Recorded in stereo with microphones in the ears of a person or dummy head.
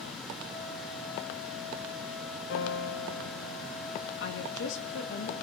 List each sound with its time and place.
2.5 s a piano: 65° left (ahead or behind), 0.8 m
4.2 s a woman speaking: 75° left (ahead or behind), 1.6 m